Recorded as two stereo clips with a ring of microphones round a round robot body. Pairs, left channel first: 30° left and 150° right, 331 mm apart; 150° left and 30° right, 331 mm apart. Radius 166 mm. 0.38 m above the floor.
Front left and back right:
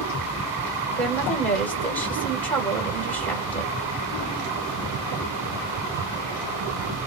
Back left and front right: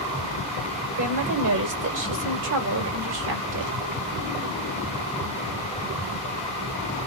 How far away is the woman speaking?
About 1.2 m.